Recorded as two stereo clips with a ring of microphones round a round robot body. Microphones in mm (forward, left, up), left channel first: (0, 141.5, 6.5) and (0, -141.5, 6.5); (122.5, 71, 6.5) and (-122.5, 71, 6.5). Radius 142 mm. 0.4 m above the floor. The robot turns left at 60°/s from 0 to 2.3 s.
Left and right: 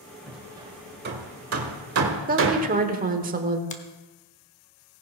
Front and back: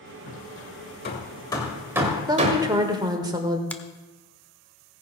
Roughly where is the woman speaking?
Behind right.